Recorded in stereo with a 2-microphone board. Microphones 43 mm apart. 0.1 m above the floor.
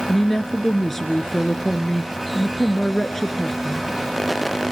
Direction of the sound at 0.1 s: 5° left (ahead or behind).